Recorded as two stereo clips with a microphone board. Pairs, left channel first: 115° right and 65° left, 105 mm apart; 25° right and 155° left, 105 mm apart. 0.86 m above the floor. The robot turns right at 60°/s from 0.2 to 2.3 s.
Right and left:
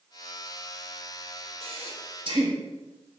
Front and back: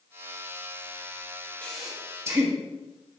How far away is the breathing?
About 1.6 m.